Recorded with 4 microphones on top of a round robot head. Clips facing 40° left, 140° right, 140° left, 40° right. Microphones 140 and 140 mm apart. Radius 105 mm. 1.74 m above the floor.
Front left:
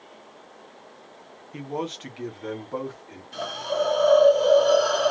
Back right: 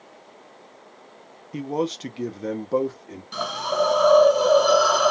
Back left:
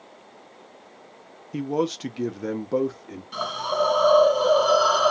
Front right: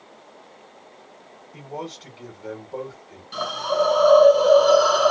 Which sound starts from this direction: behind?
A man speaking, at 1.5 s.